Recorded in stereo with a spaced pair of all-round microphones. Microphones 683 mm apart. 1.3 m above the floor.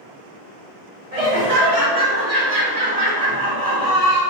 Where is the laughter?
60° right (ahead or behind), 1.4 m.